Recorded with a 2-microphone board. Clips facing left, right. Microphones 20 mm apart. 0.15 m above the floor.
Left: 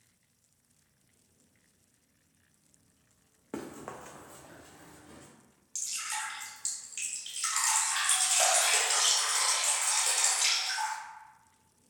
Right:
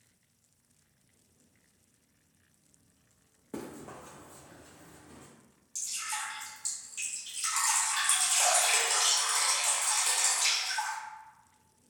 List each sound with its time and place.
3.5 s running footsteps: 30° left (ahead or behind), 0.6 m; by 5.3 s 40° left (ahead or behind), 1.2 m
5.8 s dripping: 30° left (ahead or behind), 1.2 m